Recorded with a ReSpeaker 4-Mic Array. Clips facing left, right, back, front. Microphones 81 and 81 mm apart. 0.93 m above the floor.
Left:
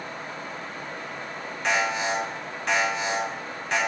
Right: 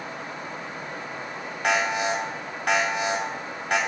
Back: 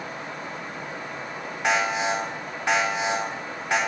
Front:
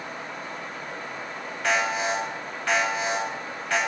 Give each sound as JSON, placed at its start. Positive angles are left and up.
{"t": 1.6, "sound": "an alarm", "azimuth_deg": -110, "distance_m": 6.0}